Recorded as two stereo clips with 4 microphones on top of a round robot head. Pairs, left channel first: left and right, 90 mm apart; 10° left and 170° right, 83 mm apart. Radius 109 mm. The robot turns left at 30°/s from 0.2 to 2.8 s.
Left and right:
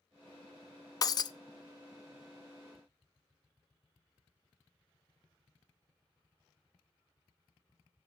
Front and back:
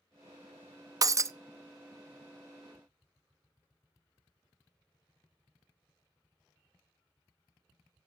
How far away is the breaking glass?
About 0.6 m.